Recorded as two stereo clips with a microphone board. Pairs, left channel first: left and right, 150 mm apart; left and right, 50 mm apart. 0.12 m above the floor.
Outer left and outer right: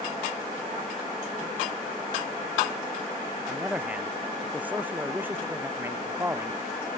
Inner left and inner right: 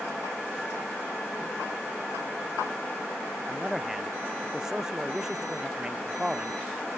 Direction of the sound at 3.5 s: 5° right (ahead or behind).